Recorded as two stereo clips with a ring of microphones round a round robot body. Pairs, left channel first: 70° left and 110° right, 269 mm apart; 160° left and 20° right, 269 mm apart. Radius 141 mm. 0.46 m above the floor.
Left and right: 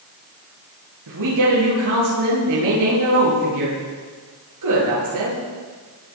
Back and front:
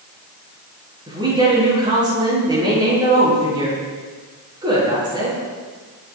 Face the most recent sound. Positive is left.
turn(degrees=-95)